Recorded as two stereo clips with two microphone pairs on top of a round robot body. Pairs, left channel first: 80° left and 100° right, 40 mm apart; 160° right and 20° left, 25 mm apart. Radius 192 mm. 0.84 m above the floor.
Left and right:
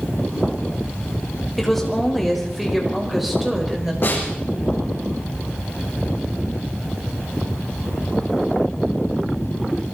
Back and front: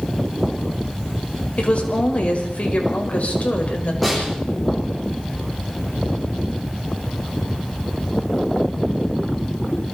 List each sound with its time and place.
1.6 s a woman speaking: 165° left, 5 m; by 3.9 s 175° left, 5 m
4.0 s a snare drum: 115° left, 9 m